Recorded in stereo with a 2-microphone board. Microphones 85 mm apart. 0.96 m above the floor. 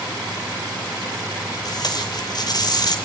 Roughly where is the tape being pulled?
Left.